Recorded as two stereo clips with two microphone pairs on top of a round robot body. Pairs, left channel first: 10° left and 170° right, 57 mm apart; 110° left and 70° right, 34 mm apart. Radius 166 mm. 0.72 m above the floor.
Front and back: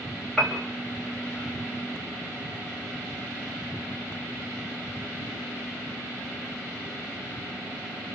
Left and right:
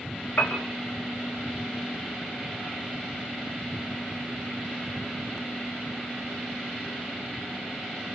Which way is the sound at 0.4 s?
95° left.